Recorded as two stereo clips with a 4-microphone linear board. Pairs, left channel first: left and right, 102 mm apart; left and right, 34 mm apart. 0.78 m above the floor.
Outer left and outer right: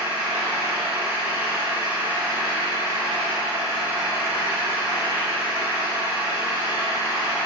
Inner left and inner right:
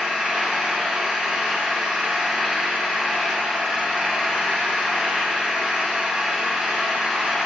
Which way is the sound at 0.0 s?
20° right (ahead or behind).